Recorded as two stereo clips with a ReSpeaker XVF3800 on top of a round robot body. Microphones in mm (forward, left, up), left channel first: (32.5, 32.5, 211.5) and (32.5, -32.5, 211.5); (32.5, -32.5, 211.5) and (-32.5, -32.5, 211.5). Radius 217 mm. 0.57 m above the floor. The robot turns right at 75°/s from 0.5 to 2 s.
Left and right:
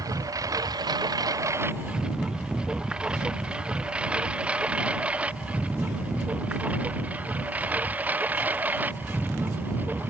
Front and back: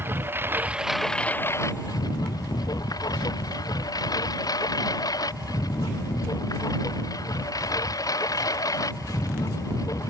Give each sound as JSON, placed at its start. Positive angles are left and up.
{"t": 0.0, "sound": "a lawn mower", "azimuth_deg": -125}